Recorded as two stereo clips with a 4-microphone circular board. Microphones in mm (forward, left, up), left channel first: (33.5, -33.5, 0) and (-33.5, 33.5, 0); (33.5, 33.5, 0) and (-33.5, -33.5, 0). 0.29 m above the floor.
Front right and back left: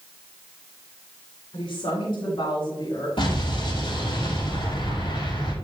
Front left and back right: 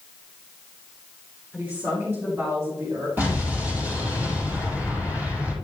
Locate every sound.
1.5 s a woman speaking: 65° right, 5 m; by 3.1 s 85° right, 5.5 m
3.2 s an explosion: 65° right, 5 m